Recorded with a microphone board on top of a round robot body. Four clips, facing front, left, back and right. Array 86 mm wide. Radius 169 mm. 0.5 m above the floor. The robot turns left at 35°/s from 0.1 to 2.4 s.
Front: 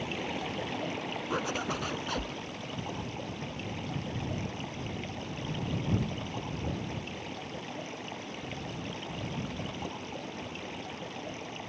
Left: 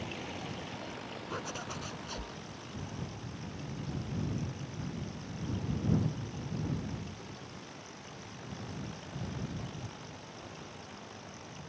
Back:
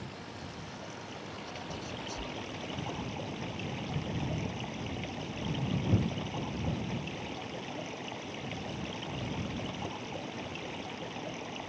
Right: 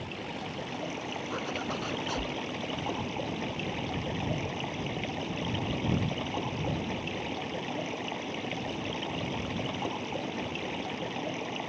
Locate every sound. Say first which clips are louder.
0.0 s running water: right 3 dB, front 9 dB; 10° right; by 11.7 s 90° right
1.3 s a zipper: right 5 dB, front 12 dB; 5° right; by 2.4 s 40° right